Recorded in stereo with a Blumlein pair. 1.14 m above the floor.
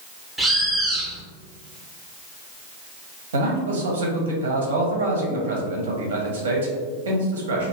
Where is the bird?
5° right, 0.6 m.